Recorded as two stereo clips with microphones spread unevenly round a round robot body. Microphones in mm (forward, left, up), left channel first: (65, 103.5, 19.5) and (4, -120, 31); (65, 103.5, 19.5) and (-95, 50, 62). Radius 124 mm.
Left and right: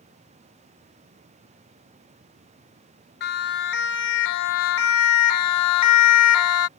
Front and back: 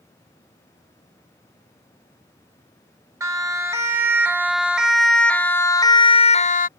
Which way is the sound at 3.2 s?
125° left.